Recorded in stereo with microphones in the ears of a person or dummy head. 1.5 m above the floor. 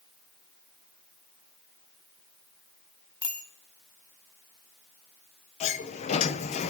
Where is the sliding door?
40° left (ahead or behind), 0.9 m.